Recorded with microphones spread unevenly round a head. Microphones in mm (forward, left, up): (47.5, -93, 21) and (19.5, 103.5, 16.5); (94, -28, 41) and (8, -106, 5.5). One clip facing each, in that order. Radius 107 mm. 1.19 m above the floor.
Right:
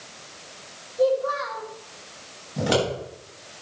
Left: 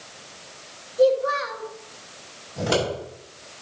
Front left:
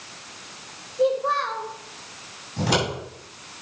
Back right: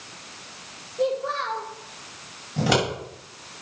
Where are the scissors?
155° right, 6 m.